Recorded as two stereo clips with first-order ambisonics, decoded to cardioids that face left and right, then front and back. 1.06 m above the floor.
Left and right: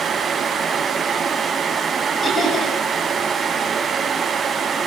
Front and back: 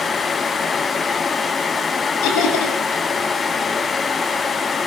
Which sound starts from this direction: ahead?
Laughter, at 2.2 s.